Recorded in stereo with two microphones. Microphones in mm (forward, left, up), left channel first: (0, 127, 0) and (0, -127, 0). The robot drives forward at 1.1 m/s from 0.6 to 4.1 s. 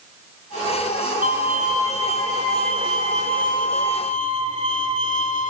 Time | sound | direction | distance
1.2 | a violin | 50° left (ahead or behind) | 4.5 m